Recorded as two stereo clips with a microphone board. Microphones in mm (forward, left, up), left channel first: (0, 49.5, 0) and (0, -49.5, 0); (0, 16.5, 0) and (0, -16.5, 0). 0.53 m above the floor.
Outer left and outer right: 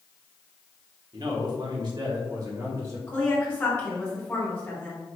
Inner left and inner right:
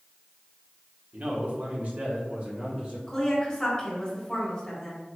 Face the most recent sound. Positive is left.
turn(degrees=20)  # may be behind; listen again after turning